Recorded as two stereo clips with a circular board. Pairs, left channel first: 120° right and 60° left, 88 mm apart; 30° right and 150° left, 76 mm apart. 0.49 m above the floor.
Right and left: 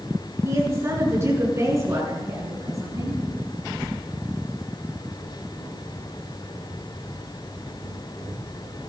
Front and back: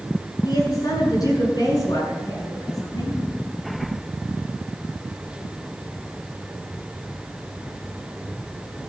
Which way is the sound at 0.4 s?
Straight ahead.